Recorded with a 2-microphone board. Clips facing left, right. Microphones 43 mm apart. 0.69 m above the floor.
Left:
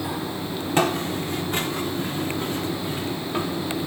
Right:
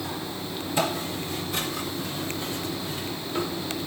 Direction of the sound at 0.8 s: 65° left (ahead or behind).